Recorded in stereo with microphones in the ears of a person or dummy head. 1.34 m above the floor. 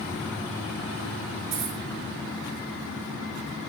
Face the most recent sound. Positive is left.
turn(degrees=-45)  # may be behind; listen again after turning